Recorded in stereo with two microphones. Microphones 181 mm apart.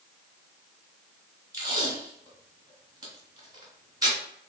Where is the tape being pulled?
20° right (ahead or behind), 1.5 m.